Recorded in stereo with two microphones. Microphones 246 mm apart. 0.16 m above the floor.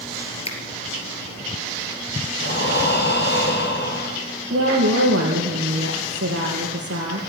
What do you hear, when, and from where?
0.5 s a finger snap: 25° left (ahead or behind), 3 m
2.4 s breathing: 45° left (ahead or behind), 2 m
4.5 s a woman speaking: 70° right (ahead or behind), 4 m